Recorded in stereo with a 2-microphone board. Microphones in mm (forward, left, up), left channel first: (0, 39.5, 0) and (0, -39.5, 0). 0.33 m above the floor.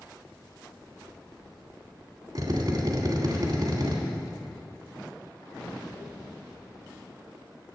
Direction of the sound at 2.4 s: 50° right (ahead or behind).